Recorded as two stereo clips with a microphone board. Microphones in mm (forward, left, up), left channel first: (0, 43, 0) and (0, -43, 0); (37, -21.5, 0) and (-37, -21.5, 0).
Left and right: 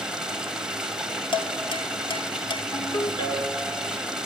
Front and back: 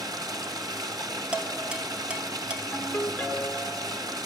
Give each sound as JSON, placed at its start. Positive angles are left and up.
{"t": 0.0, "sound": "running water", "azimuth_deg": -170, "distance_m": 1.3}
{"t": 1.3, "sound": "dishes clattering", "azimuth_deg": 105, "distance_m": 1.3}
{"t": 2.7, "sound": "a ringtone", "azimuth_deg": 70, "distance_m": 2.0}